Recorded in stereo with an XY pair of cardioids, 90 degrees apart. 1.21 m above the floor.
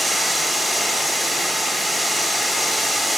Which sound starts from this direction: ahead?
Running water, at 0.0 s.